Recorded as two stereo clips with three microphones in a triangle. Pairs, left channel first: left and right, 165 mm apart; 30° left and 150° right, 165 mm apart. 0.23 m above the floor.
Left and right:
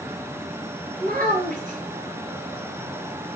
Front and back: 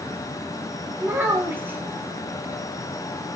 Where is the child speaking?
75° right, 1.2 m.